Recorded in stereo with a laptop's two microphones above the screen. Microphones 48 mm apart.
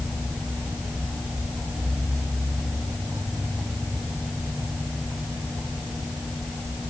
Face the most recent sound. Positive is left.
No sound to turn to.